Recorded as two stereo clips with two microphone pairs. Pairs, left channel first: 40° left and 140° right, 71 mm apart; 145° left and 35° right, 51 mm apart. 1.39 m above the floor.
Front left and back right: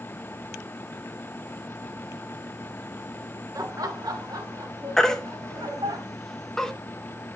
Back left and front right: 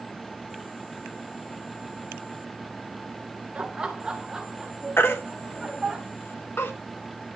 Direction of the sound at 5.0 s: 125° left.